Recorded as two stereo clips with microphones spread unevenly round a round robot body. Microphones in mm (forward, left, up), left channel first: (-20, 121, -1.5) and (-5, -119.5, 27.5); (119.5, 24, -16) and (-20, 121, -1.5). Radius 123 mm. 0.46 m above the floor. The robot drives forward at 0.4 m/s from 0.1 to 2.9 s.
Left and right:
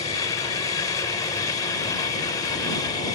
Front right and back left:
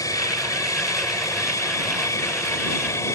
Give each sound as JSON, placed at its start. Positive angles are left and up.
{"t": 0.0, "sound": "an aircraft", "azimuth_deg": 30}